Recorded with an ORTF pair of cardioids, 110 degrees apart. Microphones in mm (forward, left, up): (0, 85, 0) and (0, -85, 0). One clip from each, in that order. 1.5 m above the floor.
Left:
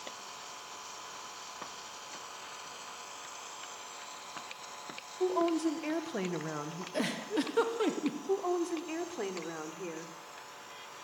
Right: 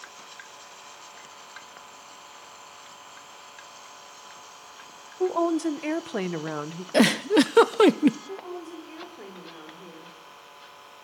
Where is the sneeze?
I don't hear a sneeze.